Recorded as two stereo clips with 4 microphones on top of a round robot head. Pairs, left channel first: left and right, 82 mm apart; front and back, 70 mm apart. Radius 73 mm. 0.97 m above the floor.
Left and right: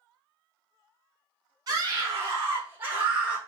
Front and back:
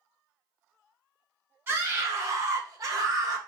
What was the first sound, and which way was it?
A scream, 125° right.